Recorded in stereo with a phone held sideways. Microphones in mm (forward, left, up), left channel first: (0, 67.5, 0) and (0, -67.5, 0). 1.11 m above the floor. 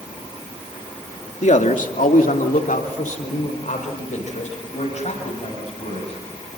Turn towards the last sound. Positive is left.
turn(degrees=55)  # may be behind; listen again after turning